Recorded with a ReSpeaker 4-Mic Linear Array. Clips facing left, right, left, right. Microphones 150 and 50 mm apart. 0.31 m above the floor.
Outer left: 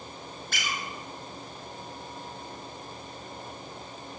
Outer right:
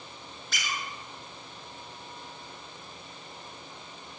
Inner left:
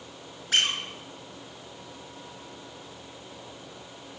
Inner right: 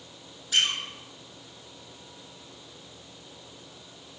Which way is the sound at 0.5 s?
50° left (ahead or behind).